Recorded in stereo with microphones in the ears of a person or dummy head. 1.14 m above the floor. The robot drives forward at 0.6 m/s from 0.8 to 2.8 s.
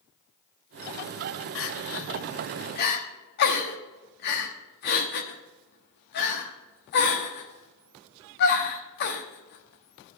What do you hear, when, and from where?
1.6 s crying: 60° left (ahead or behind), 0.9 m; by 10.2 s 55° left (ahead or behind), 1.0 m